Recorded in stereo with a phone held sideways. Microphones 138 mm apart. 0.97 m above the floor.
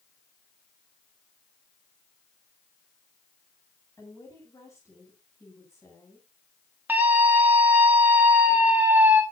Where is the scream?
15° right (ahead or behind), 3 m.